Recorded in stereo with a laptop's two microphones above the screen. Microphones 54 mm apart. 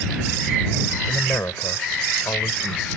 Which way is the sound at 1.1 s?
65° left (ahead or behind).